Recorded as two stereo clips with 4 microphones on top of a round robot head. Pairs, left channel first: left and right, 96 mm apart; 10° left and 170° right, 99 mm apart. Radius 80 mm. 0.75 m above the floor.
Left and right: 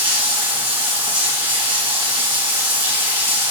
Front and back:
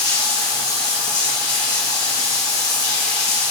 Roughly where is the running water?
Ahead right.